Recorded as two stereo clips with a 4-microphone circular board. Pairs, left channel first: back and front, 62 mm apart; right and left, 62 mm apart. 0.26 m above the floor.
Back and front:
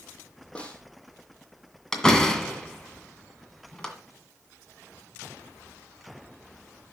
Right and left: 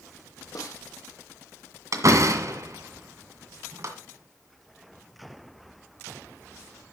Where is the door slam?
100° left, 1.9 m.